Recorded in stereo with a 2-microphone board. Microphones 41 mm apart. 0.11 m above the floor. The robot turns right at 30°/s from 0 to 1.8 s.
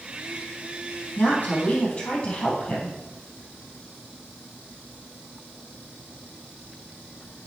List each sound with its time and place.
1.2 s a woman speaking: 40° left (ahead or behind), 3.5 m; by 3.0 s 25° left (ahead or behind), 3.5 m